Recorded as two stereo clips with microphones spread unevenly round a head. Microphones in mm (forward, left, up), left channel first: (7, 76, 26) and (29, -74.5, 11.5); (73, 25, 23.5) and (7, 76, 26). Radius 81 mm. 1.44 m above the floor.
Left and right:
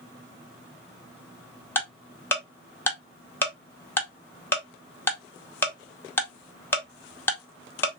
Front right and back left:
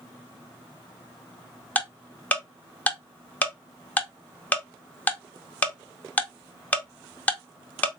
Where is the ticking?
30° left, 0.8 m.